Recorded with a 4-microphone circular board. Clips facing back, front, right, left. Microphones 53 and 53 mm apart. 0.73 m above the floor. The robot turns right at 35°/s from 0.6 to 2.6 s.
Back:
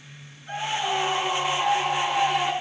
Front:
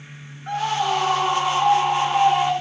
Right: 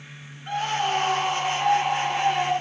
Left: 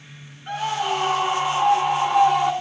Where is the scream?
5° left, 10 m; by 2.5 s 70° left, 10 m.